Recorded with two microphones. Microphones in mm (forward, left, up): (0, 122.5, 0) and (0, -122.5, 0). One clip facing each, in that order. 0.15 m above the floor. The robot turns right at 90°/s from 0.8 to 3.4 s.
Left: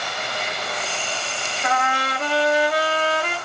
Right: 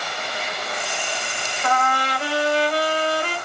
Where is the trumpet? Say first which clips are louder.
Right 2 dB; 20° left, 1.9 m; by 3.4 s 175° left, 1.9 m.